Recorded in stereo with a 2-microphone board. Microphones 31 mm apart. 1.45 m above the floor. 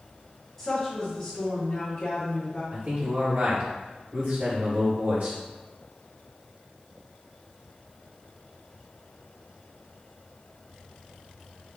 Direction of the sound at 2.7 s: 65° right (ahead or behind).